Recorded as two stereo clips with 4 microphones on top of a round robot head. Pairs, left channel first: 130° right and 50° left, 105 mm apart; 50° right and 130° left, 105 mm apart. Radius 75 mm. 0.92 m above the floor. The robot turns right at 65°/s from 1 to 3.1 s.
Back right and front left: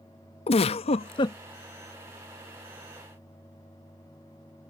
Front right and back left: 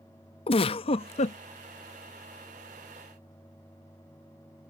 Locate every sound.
0.5 s a giggle: 90° right; by 1.4 s 65° right